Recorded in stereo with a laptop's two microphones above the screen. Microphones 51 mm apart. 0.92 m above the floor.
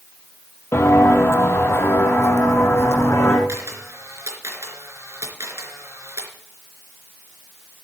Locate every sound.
0.7 s footsteps: 55° left (ahead or behind), 1.6 m
3.5 s a camera shutter: 65° right (ahead or behind), 3.5 m